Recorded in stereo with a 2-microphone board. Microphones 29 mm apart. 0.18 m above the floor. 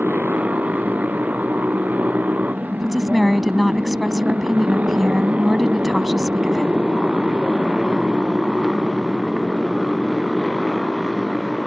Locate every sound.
0.0 s a motorcycle: 85° right; by 11.7 s 10° right (ahead or behind)
2.8 s a woman speaking: centre (ahead or behind)